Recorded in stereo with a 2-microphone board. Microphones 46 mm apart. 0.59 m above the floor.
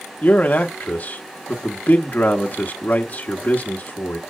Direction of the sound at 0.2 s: 40° left (ahead or behind).